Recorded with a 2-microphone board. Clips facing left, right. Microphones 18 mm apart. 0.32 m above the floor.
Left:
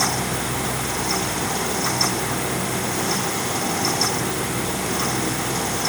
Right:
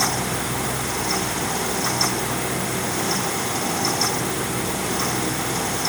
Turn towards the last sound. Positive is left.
No sound to turn to.